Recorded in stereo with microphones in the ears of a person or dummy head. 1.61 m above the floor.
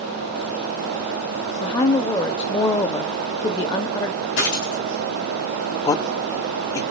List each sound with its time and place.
1.6 s a woman speaking: 25° left (ahead or behind), 0.6 m
4.4 s a dropped coin: 70° left (ahead or behind), 4.5 m
5.8 s a man speaking: 25° left (ahead or behind), 0.5 m